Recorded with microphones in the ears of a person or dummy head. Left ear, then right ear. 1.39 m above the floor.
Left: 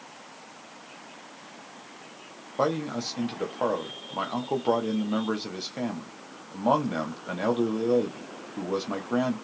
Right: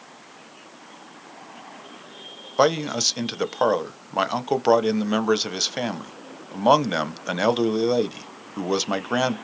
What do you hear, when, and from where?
2.6 s a man speaking: 45° right (ahead or behind), 0.5 m